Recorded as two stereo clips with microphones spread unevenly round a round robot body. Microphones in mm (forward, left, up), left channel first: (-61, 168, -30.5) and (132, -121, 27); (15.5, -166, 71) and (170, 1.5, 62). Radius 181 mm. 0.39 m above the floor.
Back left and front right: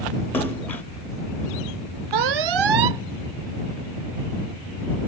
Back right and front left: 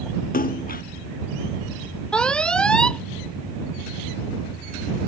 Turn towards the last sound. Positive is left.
turn(degrees=-45)